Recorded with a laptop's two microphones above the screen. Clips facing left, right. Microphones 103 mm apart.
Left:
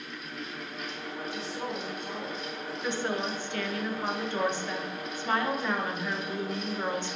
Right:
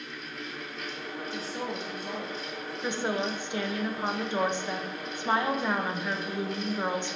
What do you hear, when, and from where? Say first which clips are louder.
0.0 s a fan: even; 10° left (ahead or behind), 1.8 m
1.3 s a woman speaking: right 2 dB; 40° right (ahead or behind), 0.6 m
2.8 s a woman speaking: right 1 dB; 20° right (ahead or behind), 0.5 m